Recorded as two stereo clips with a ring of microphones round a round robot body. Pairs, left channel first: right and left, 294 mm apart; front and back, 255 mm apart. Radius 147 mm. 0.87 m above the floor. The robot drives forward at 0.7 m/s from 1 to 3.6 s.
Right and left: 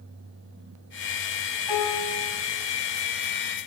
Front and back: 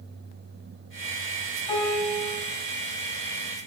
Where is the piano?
80° right, 6 m; by 2.4 s 85° right, 6 m.